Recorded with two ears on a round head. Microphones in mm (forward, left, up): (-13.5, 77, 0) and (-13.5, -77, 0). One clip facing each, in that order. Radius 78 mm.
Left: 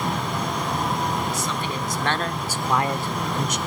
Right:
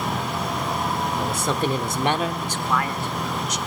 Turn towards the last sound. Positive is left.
turn(degrees=45)  # may be behind; listen again after turning